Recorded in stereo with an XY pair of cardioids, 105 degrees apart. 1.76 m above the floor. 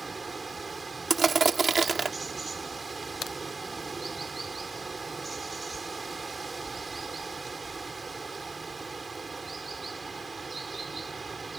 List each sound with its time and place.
0.0 s running water: 25° right
1.1 s crushing: 30° right
3.2 s a crack: 55° left